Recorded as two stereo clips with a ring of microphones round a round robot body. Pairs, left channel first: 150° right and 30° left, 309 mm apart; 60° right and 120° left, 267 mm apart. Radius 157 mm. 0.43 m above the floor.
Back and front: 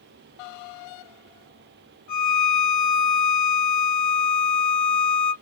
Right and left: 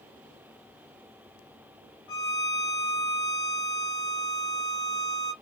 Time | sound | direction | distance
2.1 | a violin | 110° right | 1.1 m